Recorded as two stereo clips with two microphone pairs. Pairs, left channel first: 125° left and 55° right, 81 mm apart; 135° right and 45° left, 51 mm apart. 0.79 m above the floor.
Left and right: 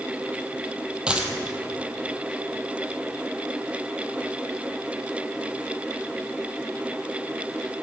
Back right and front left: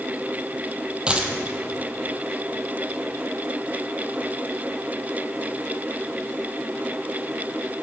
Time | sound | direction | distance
1.1 | a dropped coin | 5° left | 0.8 m